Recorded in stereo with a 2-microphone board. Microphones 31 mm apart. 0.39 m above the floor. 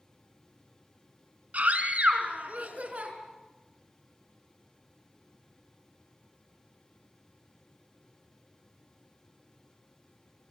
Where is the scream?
55° right (ahead or behind), 4.5 m; by 3.1 s 50° right (ahead or behind), 5.5 m.